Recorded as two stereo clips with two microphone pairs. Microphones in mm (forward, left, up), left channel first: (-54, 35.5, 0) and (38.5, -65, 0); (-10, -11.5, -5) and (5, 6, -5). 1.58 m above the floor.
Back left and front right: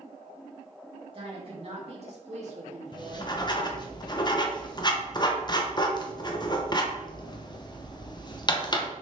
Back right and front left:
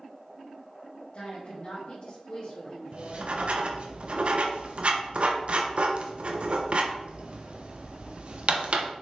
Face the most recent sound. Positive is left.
turn(degrees=80)